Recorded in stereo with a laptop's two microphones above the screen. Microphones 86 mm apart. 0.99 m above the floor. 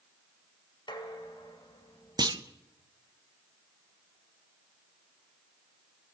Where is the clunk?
55° right (ahead or behind), 0.6 m.